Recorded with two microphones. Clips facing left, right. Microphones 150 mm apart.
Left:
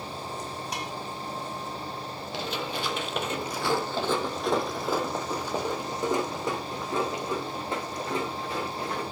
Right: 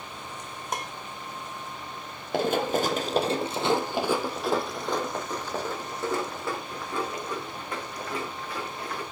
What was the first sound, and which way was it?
Dishes clattering, 50° right (ahead or behind).